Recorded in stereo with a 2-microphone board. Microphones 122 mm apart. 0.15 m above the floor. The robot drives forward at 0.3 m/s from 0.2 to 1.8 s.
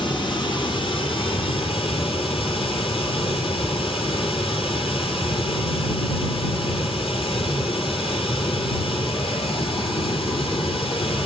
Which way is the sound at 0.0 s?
40° left (ahead or behind).